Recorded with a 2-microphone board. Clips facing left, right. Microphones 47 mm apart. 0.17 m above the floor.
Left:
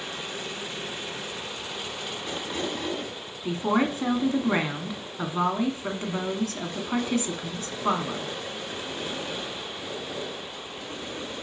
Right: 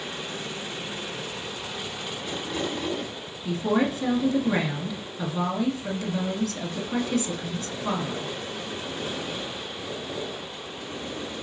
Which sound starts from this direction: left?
A woman speaking, at 3.5 s.